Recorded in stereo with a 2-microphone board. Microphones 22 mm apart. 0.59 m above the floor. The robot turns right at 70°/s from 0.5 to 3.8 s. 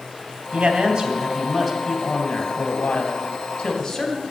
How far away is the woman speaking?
About 2.5 m.